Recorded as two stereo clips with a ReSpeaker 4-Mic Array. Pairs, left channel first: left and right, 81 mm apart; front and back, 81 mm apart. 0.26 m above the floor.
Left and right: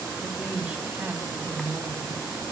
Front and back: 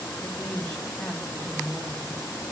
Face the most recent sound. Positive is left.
turn(degrees=-115)